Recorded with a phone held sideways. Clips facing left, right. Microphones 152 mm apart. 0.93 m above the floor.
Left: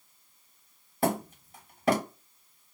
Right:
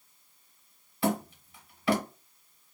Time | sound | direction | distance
1.0 | hammering | 45° left (ahead or behind) | 1.2 m